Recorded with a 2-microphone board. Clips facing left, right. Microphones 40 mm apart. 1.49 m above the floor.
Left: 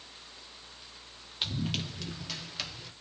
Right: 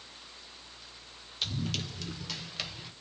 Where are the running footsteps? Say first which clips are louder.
Left 1 dB; 20° left (ahead or behind), 1.7 m; by 2.9 s 15° right (ahead or behind), 1.5 m.